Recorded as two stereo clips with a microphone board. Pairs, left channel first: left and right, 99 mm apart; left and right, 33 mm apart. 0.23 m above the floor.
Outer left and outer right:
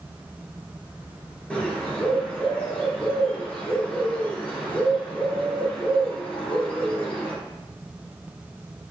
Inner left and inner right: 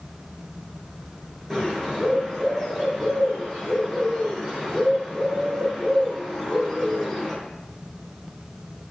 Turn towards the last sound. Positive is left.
turn(degrees=10)  # may be behind; listen again after turning